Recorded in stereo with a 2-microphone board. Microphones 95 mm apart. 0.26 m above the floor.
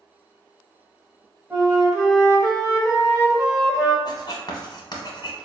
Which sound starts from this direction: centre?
A flute, at 1.5 s.